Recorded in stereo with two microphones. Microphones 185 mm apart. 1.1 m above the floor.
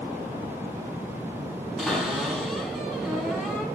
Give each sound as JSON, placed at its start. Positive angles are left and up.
{"t": 1.8, "sound": "a cupboard door", "side_deg": 0, "distance_m": 3.5}